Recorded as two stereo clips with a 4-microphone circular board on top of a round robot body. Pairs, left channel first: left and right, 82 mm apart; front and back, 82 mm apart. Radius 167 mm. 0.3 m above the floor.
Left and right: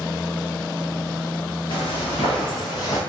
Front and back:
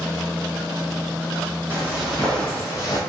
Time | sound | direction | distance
1.7 | footsteps | 110° left | 0.8 m